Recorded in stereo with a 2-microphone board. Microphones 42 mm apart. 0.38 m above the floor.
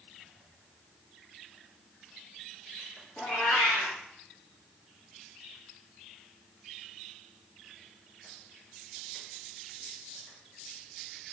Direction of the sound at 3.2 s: 40° left (ahead or behind).